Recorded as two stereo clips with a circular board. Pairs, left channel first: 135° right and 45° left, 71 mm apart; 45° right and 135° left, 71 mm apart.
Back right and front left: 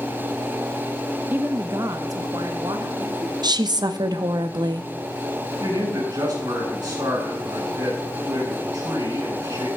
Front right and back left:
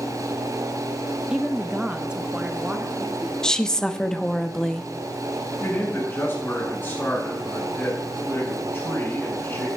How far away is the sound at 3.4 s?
About 0.7 m.